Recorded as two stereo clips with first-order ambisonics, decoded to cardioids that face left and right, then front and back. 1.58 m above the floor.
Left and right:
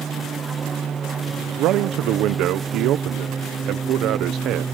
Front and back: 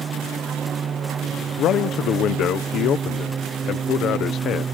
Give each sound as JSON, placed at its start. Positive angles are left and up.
{"t": 0.0, "sound": "an aircraft", "azimuth_deg": -140}
{"t": 1.6, "sound": "a man speaking", "azimuth_deg": -50}